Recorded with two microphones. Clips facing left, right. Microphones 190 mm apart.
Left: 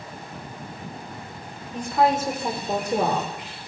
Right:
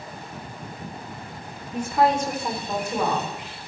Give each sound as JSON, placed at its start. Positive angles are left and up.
{"t": 1.7, "sound": "a woman speaking", "side_deg": -10, "distance_m": 1.8}